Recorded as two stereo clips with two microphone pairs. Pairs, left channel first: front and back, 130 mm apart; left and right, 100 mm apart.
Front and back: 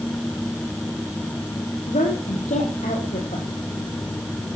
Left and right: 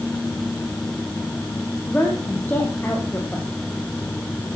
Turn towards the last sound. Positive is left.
turn(degrees=20)